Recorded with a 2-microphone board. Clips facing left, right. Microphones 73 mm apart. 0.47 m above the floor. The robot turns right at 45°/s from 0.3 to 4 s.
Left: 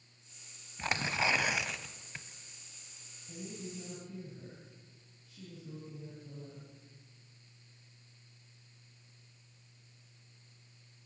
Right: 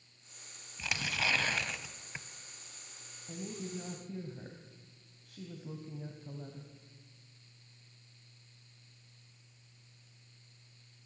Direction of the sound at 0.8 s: 135° left.